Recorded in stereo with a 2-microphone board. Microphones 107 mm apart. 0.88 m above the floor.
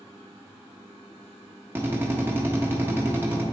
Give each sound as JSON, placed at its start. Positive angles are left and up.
{"t": 1.8, "sound": "a drill", "side_deg": -20, "distance_m": 0.9}